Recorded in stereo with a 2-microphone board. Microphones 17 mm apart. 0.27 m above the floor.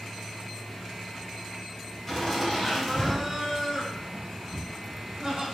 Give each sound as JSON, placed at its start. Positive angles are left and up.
{"t": 2.1, "sound": "laughter", "side_deg": 20, "distance_m": 1.6}